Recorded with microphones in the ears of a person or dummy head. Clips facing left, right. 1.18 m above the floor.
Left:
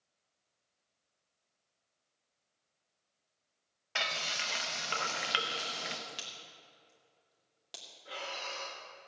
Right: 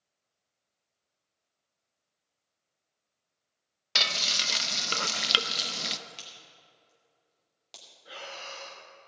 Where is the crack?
5° left (ahead or behind), 2 m.